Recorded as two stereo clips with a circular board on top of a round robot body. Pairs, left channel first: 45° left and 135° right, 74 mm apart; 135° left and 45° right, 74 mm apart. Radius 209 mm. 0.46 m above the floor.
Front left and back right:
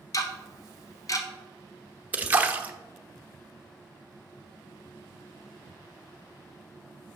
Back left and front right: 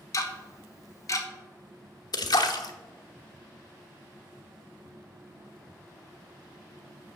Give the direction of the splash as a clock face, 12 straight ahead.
7 o'clock.